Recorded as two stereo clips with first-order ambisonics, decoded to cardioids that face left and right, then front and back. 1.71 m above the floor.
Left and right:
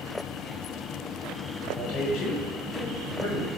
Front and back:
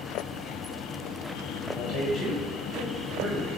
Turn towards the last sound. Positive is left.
turn(degrees=80)